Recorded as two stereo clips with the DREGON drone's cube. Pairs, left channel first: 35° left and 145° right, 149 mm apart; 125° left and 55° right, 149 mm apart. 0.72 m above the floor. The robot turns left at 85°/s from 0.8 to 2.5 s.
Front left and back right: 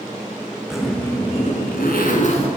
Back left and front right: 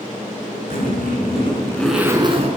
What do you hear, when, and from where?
0.7 s a zipper: 125° left, 5.5 m; by 2.5 s 15° right, 5.5 m